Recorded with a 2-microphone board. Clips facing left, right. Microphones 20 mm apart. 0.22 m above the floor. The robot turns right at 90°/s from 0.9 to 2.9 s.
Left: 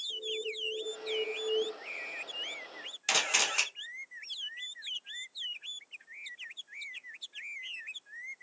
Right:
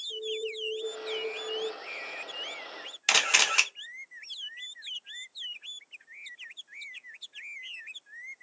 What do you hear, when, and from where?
0.1 s an alarm: 10° right, 0.7 m; by 1.6 s 55° left, 0.7 m
3.1 s a camera shutter: 20° right (ahead or behind), 0.6 m